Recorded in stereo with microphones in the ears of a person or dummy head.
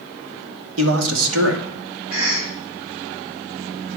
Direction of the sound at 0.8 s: 90° right.